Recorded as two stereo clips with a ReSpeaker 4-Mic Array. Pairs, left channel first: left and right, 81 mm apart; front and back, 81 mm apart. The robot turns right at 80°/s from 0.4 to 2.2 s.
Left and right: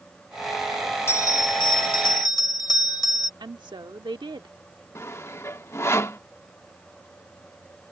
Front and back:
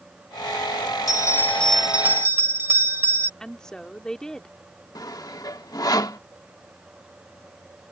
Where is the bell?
30° left; by 3.3 s 125° left.